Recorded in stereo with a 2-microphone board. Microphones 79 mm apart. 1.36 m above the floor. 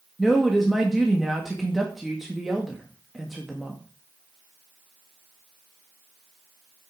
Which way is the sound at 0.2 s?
5° right (ahead or behind).